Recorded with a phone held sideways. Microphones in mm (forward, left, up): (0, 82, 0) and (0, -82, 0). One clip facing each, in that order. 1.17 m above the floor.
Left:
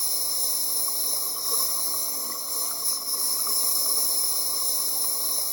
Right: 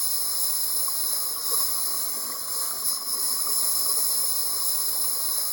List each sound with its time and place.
0.0 s a lawn mower: 15° left (ahead or behind)